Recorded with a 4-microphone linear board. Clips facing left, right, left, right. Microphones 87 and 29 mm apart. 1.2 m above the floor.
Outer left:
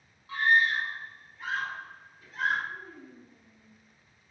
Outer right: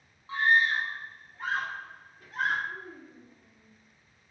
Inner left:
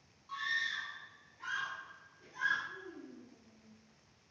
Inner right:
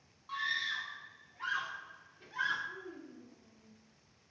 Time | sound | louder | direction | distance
0.3 | a scream | even, inner right 1 dB | 25° right (ahead or behind) | 1.5 m
2.7 | a child speaking | outer right 1 dB, inner right 1 dB | 30° right (ahead or behind) | 1.9 m